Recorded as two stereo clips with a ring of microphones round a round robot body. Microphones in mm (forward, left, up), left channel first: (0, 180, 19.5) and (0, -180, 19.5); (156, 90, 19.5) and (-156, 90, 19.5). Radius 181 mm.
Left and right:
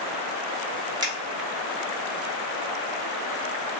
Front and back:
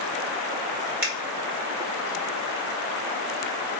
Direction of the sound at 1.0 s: 165° right.